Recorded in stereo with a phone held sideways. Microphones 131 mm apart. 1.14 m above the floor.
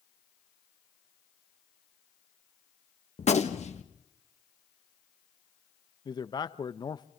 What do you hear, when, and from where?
3.2 s a gunshot: 55° left (ahead or behind), 1.6 m
6.0 s a man speaking: 30° left (ahead or behind), 0.8 m